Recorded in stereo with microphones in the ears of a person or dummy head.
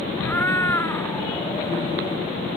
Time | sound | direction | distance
0.2 | a cat meowing | 15° left (ahead or behind) | ?